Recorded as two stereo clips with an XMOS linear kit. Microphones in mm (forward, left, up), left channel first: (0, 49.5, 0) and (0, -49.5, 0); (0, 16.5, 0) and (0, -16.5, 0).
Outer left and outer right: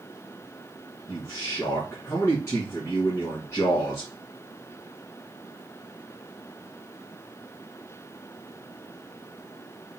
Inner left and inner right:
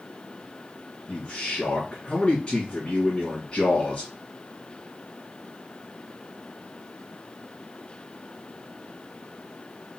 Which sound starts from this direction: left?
A man speaking, at 1.1 s.